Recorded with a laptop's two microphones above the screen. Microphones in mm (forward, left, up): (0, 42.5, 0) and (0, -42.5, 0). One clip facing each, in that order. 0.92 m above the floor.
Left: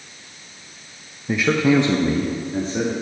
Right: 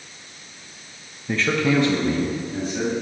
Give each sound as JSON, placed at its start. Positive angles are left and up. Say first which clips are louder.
{"t": 1.3, "sound": "a man speaking", "louder": "left 3 dB", "side_deg": 5, "distance_m": 0.7}